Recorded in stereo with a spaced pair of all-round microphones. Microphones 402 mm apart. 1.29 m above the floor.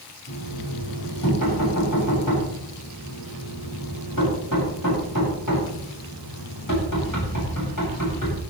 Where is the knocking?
50° left (ahead or behind), 8.5 m.